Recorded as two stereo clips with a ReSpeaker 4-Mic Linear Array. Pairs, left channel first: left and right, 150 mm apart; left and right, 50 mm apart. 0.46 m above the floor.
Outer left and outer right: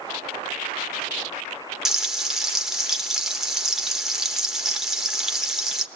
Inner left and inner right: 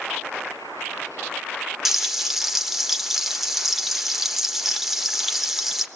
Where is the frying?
5° right (ahead or behind), 1.2 m.